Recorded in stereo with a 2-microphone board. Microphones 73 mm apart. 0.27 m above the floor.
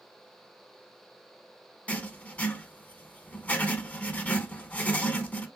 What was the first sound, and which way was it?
Writing, 20° left (ahead or behind).